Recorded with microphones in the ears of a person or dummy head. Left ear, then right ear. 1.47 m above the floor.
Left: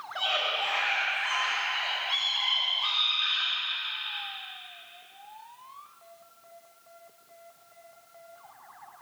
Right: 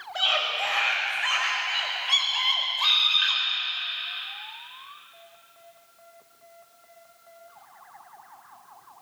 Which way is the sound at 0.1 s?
20° right (ahead or behind).